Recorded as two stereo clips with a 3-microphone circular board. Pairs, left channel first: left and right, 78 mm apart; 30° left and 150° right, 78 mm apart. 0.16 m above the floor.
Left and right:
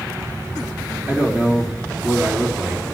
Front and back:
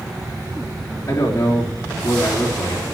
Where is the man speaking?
20° right, 3.5 m.